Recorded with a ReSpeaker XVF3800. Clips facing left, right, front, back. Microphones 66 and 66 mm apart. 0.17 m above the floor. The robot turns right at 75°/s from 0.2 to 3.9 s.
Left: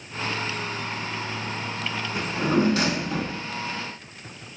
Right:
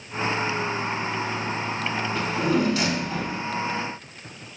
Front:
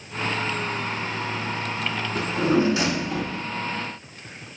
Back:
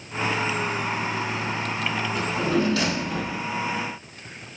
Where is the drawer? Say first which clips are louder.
Left 1 dB, front 4 dB; 20° left, 0.7 m; by 3.4 s 115° left, 0.7 m.